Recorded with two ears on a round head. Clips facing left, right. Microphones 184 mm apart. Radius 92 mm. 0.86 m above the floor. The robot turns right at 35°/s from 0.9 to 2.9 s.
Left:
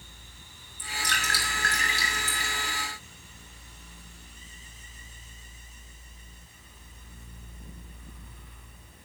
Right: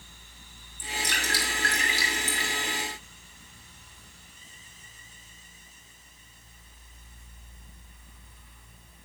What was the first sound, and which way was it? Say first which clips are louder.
Dripping: right 2 dB; centre (ahead or behind).